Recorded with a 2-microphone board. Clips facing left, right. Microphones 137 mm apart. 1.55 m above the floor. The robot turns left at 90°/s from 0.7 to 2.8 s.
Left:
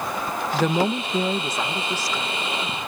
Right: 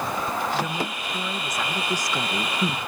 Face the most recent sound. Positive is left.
turn(degrees=-90)